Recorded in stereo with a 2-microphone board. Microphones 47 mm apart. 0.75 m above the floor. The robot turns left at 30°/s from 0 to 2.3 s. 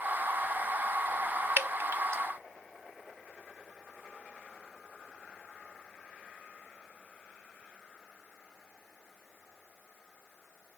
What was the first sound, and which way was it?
Dripping, 50° right (ahead or behind).